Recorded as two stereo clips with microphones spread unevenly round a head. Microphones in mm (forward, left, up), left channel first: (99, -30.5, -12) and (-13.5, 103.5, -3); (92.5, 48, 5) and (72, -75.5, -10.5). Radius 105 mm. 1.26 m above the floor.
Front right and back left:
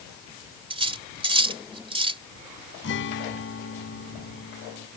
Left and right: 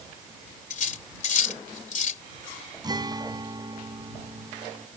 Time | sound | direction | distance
0.7 | cutlery clinking | 70° left | ?
2.8 | a guitar | 40° right | ?